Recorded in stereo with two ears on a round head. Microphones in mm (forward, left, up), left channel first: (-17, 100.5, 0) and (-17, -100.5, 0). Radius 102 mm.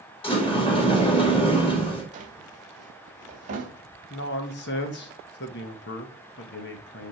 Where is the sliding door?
25° left (ahead or behind), 1.9 m.